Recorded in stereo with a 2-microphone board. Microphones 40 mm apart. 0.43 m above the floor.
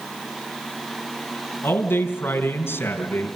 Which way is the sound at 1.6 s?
75° left (ahead or behind).